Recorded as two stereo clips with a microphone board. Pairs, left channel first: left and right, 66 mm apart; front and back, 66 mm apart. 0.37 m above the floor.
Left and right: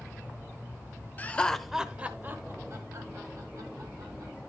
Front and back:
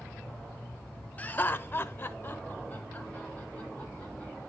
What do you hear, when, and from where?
1.2 s laughter: 45° left, 1.0 m; by 4.3 s 65° right, 3 m